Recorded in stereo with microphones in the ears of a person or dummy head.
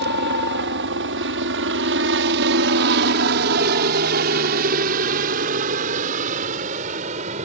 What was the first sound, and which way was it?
A helicopter, 60° right (ahead or behind).